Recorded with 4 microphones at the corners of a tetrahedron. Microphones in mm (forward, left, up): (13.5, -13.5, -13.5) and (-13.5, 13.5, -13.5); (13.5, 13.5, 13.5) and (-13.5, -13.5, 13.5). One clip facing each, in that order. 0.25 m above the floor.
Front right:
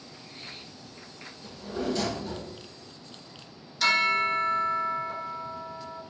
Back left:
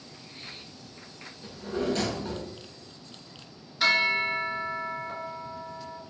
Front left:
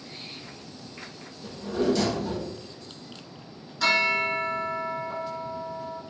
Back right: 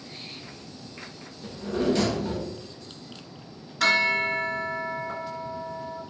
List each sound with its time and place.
1.4 s a drawer: 170° left, 1.1 m
3.8 s a bell: 155° right, 0.5 m